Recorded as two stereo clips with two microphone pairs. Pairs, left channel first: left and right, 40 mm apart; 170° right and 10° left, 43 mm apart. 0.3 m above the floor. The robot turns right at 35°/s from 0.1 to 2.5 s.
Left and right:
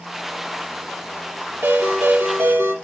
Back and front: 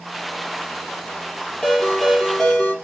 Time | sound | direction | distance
1.6 | a ringtone | 120° right | 4.5 m